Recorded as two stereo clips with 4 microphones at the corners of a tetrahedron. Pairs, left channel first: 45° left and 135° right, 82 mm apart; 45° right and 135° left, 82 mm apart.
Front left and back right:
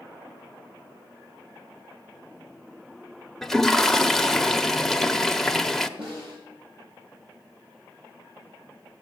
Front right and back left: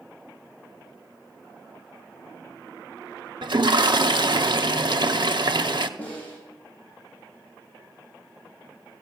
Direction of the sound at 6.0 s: 120° right.